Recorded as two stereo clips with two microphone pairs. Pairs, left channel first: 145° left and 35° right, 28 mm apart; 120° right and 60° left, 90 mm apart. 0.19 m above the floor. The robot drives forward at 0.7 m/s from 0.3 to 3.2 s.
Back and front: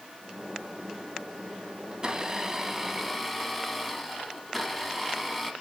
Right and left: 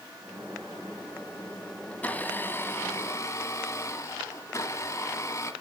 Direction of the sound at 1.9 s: 60° right.